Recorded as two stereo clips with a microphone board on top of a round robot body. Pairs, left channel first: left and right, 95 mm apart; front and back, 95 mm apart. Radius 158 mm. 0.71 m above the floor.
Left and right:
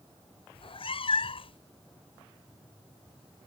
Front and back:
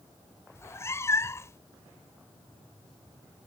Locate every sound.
0.6 s a cat meowing: 65° left